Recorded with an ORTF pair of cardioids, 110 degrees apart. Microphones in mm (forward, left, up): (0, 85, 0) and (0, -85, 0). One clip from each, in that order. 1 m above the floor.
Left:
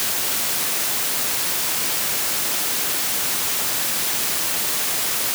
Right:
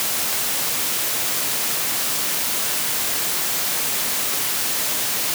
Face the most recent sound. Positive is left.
No sound to turn to.